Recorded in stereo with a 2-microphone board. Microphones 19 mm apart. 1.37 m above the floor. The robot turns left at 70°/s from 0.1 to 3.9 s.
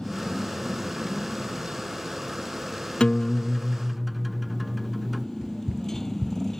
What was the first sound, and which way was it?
A motorcycle, 55° left (ahead or behind).